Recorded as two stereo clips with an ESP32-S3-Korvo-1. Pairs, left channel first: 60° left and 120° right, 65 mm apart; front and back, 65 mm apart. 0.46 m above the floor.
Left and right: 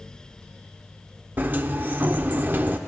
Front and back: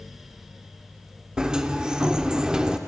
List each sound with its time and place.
1.4 s a sliding door: 120° right, 0.6 m